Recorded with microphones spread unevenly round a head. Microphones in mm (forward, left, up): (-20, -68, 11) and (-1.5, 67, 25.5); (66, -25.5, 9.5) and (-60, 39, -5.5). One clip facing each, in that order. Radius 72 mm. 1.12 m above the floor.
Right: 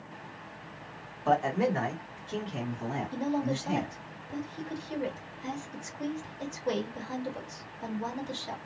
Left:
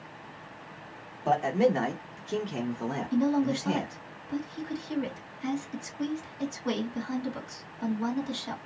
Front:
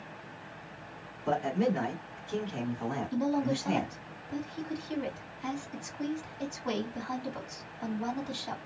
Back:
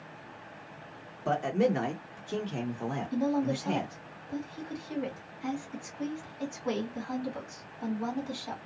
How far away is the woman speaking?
About 2 m.